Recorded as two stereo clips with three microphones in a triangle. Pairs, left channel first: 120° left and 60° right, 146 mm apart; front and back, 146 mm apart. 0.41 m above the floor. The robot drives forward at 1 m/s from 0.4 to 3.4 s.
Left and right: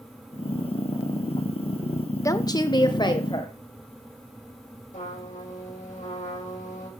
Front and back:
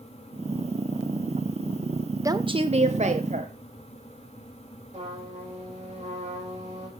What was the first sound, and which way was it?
A woman speaking, 150° left.